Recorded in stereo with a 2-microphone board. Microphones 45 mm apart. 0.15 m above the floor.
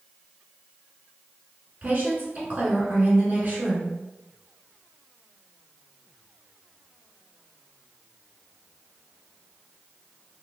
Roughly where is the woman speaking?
Right.